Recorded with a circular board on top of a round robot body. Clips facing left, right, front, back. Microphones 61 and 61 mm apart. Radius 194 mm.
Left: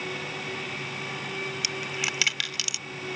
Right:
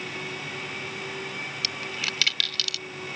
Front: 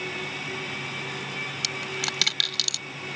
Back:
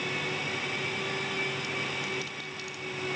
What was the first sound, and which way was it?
A dropped coin, 15° left.